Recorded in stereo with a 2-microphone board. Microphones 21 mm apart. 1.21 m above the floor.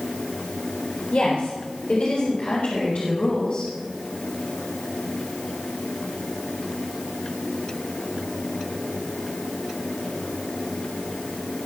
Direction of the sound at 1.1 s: 80° left.